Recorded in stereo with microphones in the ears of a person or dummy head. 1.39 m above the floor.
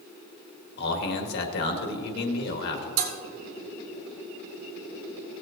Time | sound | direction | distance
0.8 | a man speaking | 65° left (ahead or behind) | 1.7 m
3.0 | dishes clattering | 65° right (ahead or behind) | 2.5 m